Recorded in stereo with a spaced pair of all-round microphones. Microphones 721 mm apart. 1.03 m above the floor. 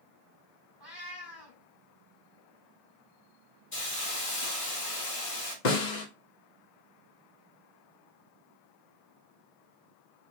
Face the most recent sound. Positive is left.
turn(degrees=85)